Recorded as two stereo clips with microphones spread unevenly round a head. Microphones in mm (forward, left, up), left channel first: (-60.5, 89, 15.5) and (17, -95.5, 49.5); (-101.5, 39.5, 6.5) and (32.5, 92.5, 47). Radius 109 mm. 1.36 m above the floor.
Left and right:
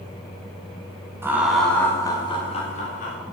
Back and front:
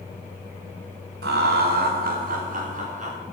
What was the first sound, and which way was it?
Laughter, 10° left.